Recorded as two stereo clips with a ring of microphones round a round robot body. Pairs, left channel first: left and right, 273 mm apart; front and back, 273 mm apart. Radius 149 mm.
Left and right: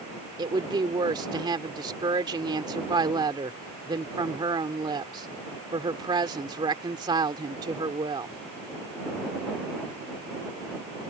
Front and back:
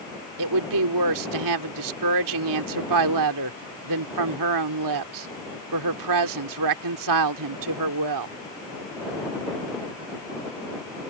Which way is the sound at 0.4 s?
165° right.